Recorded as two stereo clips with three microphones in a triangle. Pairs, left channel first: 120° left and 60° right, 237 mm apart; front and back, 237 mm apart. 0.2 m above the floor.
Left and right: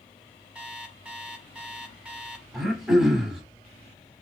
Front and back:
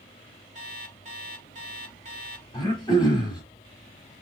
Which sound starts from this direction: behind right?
An alarm clock, at 0.6 s.